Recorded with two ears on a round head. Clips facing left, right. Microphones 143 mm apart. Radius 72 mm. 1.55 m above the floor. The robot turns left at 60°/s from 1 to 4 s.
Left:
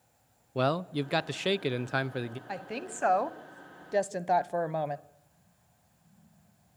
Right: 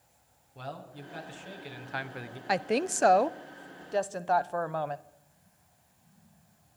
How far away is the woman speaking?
About 0.9 m.